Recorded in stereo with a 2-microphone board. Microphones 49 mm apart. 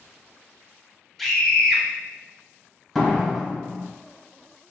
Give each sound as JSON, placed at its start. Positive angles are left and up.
{"t": 1.2, "sound": "a scream", "side_deg": 0, "distance_m": 0.9}
{"t": 3.0, "sound": "a door slam", "side_deg": 5, "distance_m": 1.3}